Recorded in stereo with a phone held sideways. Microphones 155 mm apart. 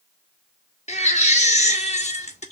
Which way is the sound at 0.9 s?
45° left (ahead or behind).